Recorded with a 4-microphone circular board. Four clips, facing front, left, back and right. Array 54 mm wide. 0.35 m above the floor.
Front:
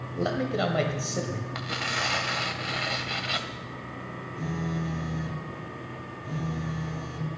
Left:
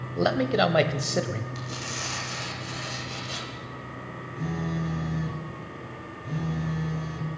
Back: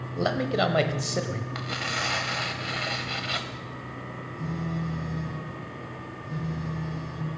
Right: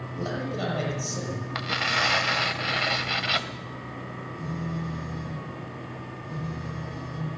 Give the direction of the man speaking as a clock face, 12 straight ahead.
8 o'clock.